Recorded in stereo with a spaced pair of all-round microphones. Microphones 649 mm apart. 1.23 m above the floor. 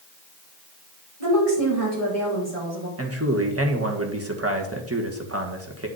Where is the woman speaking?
60° right (ahead or behind), 5 m.